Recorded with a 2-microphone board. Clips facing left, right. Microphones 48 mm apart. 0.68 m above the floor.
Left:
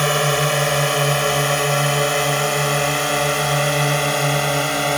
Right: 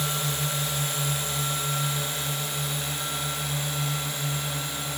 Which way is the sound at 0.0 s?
60° left (ahead or behind).